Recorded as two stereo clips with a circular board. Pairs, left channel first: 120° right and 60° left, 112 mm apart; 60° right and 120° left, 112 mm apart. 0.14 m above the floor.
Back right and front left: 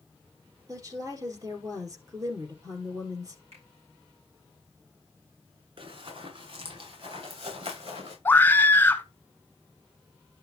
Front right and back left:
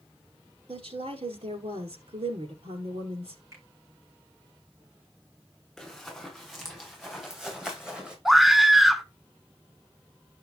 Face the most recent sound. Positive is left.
turn(degrees=-155)